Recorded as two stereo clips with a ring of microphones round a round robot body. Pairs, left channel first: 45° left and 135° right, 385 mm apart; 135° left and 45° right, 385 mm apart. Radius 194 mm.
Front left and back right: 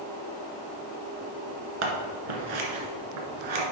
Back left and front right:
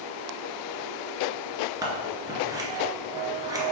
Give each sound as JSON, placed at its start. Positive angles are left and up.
{"t": 1.8, "sound": "scissors", "azimuth_deg": -125, "distance_m": 1.6}